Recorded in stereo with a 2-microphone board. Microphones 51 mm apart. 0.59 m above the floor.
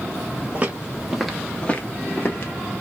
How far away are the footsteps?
About 0.9 m.